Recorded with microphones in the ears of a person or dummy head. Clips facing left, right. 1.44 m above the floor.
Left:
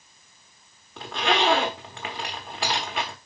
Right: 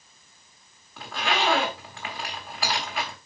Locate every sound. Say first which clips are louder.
1.0 s a zipper: left 3 dB; 25° left (ahead or behind), 1.2 m